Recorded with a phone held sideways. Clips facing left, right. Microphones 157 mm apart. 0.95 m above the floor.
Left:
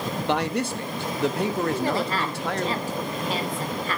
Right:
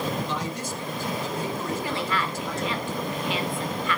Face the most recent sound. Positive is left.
turn(degrees=40)  # may be behind; listen again after turning